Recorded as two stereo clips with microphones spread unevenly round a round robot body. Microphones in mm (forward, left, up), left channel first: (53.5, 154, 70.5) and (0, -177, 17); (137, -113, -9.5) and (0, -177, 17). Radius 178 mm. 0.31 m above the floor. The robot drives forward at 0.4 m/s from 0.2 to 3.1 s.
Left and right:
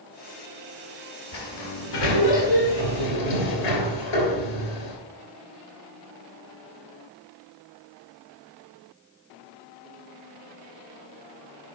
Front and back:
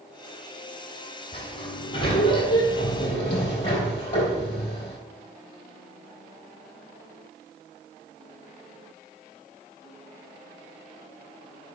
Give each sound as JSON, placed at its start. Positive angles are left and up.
{"t": 1.3, "sound": "a sliding door", "azimuth_deg": 65, "distance_m": 3.0}